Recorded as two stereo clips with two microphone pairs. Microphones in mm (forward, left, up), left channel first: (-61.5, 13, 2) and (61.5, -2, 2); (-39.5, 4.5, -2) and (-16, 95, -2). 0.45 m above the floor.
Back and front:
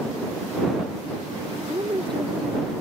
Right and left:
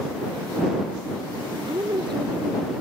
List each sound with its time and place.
1.7 s a woman speaking: 45° left